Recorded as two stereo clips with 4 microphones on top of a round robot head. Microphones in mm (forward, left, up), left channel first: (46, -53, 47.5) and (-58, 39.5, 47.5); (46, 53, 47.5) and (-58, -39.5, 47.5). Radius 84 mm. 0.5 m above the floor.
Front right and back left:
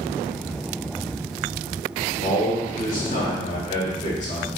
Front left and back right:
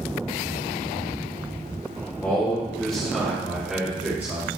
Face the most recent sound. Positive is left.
turn(degrees=-70)